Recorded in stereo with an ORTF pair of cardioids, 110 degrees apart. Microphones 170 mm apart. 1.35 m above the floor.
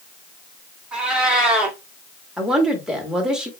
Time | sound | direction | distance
0.9 | a cat meowing | 5° right | 1.8 m
2.4 | a woman speaking | 5° right | 1.9 m